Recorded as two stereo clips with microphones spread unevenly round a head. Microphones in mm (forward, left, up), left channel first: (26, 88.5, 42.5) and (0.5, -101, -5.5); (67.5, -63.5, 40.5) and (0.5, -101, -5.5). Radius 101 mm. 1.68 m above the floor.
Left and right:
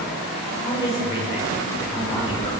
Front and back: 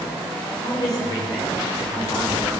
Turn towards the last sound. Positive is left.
turn(degrees=20)